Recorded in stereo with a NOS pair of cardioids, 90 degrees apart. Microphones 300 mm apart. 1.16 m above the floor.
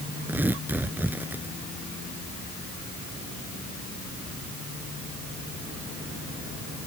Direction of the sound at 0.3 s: 5° right.